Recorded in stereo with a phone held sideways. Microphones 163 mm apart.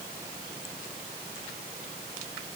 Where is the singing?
I don't hear singing.